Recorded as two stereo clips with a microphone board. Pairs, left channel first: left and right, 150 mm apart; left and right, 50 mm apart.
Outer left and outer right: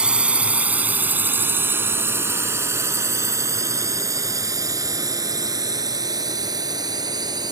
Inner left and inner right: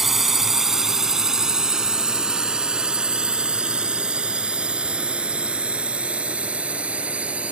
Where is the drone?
5° right (ahead or behind); by 7.5 s 25° right (ahead or behind).